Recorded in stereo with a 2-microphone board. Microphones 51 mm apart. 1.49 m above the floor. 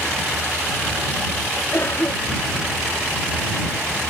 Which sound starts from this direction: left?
A cough, at 1.7 s.